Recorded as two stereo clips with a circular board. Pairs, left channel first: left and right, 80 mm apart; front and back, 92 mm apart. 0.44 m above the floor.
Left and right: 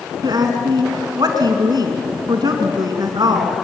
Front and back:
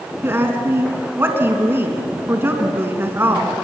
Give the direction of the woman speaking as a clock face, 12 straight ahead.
4 o'clock.